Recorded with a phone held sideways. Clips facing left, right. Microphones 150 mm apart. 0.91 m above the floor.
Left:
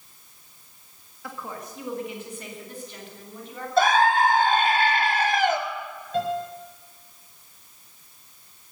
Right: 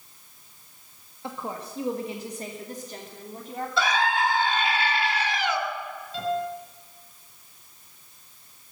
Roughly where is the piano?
Left.